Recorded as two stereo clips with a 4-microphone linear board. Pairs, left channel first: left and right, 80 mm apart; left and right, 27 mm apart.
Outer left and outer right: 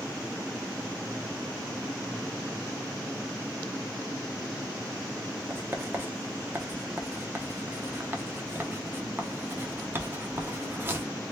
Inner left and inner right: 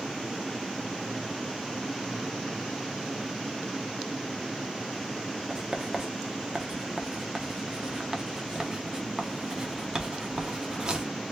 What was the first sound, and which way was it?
Writing, 25° right (ahead or behind).